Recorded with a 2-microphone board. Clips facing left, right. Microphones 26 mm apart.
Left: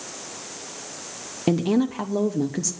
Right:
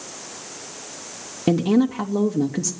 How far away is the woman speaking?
About 0.8 m.